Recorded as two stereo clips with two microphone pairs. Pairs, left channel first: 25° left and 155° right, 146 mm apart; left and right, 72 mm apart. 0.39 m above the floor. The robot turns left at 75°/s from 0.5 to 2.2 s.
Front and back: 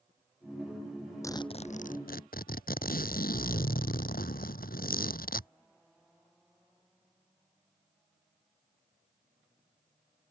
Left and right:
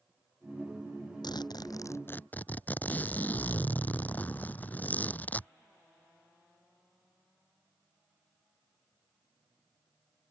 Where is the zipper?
95° left; by 5.5 s 25° left.